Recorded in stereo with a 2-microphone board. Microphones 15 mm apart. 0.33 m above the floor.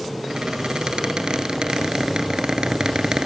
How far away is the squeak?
About 1.5 m.